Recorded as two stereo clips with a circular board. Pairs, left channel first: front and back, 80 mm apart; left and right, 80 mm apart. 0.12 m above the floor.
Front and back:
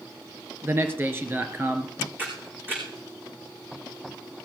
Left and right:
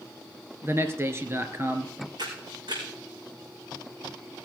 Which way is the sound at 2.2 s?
115° right.